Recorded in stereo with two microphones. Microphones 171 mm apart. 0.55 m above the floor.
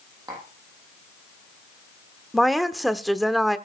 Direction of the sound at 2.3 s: Centre (ahead or behind).